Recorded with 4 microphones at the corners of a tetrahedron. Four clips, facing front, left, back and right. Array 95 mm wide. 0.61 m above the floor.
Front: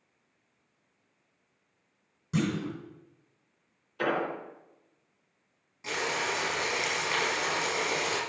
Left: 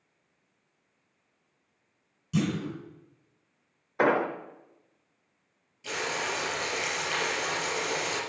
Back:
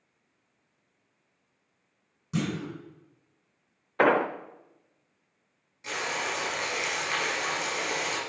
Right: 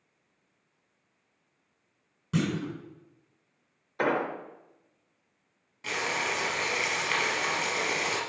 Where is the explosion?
155° left, 0.7 m.